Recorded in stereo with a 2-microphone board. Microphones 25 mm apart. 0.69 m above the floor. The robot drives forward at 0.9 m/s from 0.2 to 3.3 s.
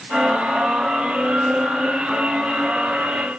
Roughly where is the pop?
I don't hear a pop.